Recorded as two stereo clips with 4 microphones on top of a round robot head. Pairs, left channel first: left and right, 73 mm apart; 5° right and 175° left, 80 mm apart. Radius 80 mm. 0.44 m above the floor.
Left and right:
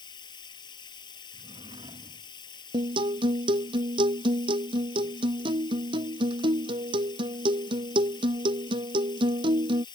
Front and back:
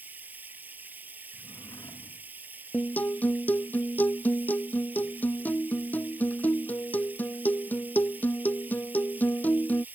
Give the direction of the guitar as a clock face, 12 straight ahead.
3 o'clock.